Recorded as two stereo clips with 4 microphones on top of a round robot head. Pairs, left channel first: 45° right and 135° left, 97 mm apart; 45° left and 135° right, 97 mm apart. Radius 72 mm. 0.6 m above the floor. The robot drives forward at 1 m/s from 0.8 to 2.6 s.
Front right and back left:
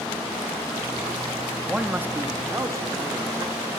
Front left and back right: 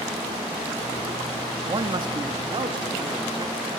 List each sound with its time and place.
1.7 s a man speaking: 145° right, 0.9 m; by 3.7 s 165° right, 1.6 m